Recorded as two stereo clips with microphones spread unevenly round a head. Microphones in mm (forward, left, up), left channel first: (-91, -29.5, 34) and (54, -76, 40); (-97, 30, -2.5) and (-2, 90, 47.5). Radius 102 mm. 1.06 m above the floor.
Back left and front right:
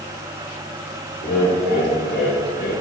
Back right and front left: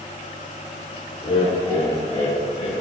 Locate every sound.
1.2 s laughter: 160° left, 4.5 m; by 2.7 s 155° left, 6 m